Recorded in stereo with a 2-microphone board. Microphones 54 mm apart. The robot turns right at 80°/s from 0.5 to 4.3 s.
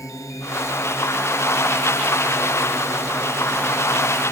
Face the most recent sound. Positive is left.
turn(degrees=15)  # may be behind; listen again after turning